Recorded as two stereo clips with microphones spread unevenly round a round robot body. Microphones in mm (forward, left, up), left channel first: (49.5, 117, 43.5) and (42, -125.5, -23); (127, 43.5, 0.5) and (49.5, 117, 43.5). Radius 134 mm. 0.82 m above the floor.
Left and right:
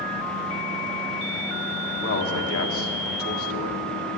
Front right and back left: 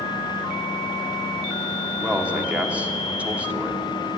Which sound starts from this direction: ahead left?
A man speaking, at 2.0 s.